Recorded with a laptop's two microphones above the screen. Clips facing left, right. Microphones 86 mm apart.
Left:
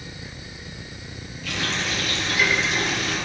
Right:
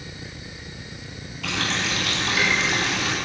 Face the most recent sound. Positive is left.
turn(degrees=-80)